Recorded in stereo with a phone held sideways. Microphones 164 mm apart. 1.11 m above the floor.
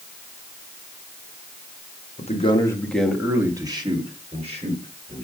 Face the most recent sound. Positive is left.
turn(degrees=-45)  # may be behind; listen again after turning